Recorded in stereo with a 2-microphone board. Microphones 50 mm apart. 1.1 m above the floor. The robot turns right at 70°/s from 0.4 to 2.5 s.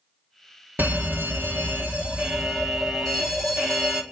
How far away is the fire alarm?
About 2 m.